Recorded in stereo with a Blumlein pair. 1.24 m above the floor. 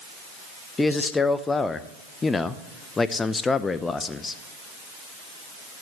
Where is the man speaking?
15° left, 0.7 m.